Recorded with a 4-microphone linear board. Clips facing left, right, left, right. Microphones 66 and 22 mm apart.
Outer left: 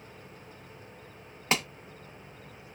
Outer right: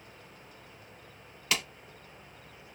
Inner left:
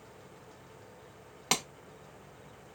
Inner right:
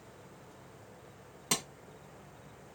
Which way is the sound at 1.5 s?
30° left (ahead or behind).